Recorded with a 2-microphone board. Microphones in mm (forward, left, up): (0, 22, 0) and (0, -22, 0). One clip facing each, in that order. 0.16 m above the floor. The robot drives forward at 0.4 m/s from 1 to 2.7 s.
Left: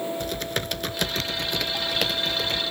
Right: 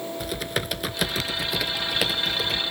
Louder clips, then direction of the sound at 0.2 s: Even; 5° right (ahead or behind).